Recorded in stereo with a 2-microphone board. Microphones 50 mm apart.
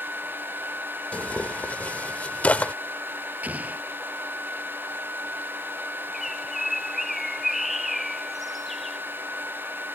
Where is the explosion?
30° right (ahead or behind).